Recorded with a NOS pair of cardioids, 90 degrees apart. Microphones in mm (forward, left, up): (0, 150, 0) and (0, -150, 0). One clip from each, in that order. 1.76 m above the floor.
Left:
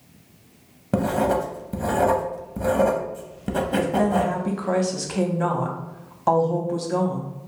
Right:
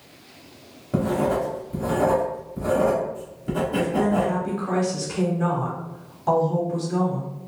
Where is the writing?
45° left, 0.7 m.